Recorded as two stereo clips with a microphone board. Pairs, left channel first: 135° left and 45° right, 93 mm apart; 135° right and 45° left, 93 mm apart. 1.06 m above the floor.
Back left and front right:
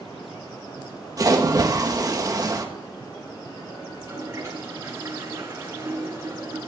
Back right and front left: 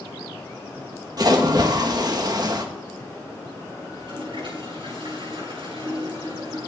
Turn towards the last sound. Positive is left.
turn(degrees=15)